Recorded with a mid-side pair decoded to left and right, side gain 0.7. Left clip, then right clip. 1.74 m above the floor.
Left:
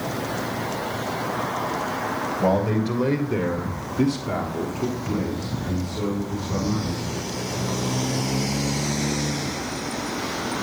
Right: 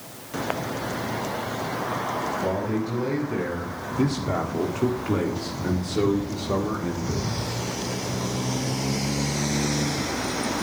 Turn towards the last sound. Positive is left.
turn(degrees=-60)